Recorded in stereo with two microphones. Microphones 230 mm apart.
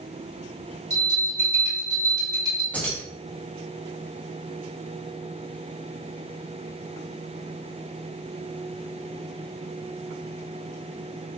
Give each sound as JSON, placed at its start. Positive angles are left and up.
{"t": 0.9, "sound": "a bell", "side_deg": -15, "distance_m": 1.7}
{"t": 2.7, "sound": "keys jangling", "side_deg": 5, "distance_m": 0.9}